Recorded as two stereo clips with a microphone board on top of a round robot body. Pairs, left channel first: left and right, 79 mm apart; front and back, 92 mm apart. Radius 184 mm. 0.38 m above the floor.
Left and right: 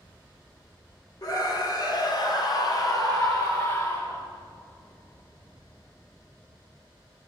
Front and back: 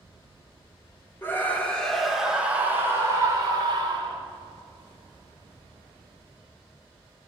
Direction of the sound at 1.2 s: 60° left.